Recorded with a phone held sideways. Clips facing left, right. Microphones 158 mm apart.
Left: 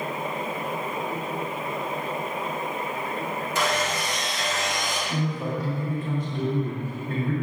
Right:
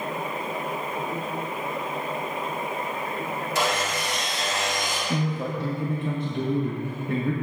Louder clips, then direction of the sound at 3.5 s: Even; 35° right (ahead or behind).